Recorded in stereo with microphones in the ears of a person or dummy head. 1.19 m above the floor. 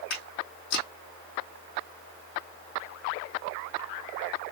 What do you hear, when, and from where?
0.1 s footsteps: 55° left (ahead or behind), 3 m